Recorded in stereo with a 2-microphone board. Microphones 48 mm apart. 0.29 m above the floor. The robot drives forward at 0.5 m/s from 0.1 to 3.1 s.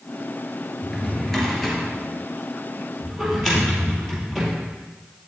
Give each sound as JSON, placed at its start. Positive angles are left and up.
{"t": 0.8, "sound": "a drawer", "side_deg": 5, "distance_m": 2.5}